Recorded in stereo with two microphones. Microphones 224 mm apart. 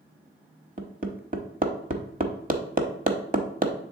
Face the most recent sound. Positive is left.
turn(degrees=-40)  # may be behind; listen again after turning